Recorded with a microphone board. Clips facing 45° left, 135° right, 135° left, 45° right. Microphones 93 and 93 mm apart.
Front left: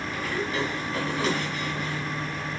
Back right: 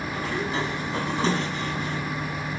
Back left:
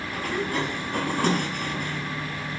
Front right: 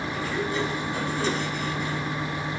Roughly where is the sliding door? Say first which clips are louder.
Back right 1 dB, back left 2 dB; behind.